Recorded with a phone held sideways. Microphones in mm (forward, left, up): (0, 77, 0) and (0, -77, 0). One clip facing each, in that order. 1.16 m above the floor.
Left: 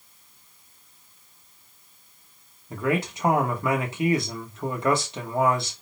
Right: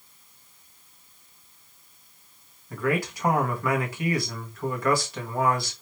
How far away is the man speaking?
About 1.2 m.